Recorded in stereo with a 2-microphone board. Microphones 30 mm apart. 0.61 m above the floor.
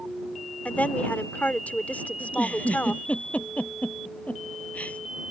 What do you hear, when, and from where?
0.7 s a woman speaking: 60° left (ahead or behind)
2.2 s a giggle: 55° left (ahead or behind)